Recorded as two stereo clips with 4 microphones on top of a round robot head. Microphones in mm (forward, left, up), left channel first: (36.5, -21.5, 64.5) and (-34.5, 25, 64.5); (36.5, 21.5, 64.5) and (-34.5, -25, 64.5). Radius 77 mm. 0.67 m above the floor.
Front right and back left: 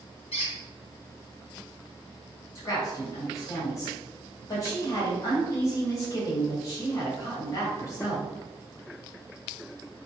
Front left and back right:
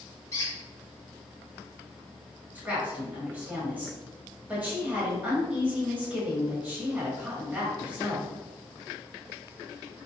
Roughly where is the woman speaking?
Right.